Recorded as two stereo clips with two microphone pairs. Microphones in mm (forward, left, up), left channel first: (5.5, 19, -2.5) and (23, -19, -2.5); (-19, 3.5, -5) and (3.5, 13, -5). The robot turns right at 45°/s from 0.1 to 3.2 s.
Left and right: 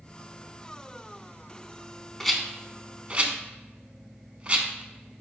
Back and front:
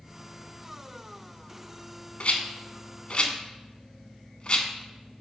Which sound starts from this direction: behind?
A rattle, at 2.2 s.